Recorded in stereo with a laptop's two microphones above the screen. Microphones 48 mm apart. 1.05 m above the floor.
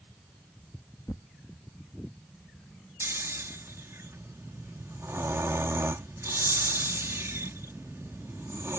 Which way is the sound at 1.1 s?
70° left (ahead or behind).